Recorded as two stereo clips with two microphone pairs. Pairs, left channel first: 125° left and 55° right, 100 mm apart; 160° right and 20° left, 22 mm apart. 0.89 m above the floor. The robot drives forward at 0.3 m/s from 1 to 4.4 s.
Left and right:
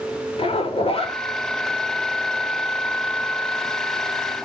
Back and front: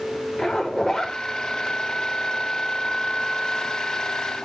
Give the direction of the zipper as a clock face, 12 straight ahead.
7 o'clock.